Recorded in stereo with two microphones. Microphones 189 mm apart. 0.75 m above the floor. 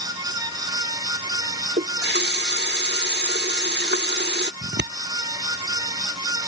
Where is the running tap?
65° right (ahead or behind).